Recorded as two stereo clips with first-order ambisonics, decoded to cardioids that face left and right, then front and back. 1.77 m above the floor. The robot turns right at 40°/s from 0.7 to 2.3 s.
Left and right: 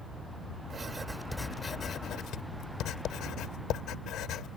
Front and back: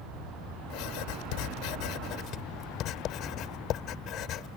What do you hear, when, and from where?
0.7 s writing: 20° right; by 4.6 s 45° left